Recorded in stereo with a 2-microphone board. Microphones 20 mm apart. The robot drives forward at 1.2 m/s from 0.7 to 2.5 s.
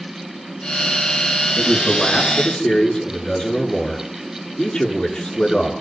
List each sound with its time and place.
1.6 s a man speaking: 55° left (ahead or behind), 6.5 m; by 5.7 s 50° left (ahead or behind), 7 m